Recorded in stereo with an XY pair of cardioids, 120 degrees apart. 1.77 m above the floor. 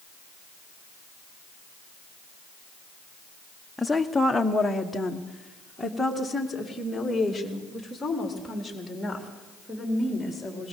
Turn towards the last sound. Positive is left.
turn(degrees=10)